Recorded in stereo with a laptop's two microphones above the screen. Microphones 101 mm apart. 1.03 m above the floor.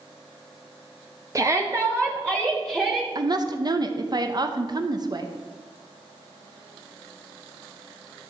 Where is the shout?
35° right (ahead or behind), 0.6 m; by 3.0 s 15° right (ahead or behind), 1.9 m.